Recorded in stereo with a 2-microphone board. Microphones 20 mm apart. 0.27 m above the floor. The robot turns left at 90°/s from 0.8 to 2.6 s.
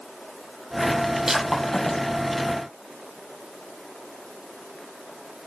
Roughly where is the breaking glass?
Right.